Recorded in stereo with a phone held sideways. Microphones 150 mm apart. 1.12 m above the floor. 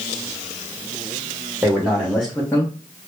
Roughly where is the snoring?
I don't hear snoring.